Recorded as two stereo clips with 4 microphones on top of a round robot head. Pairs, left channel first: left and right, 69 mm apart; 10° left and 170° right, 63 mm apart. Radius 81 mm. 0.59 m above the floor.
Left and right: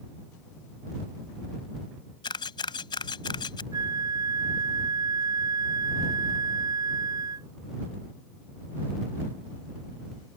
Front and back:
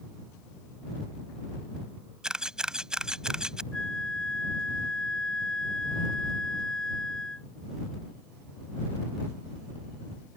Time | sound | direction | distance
2.2 | a camera shutter | 110° left | ?
3.7 | a flute | 70° right | ?